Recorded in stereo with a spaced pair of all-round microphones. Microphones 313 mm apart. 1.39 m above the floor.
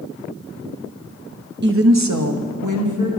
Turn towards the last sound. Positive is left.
turn(degrees=-75)  # may be behind; listen again after turning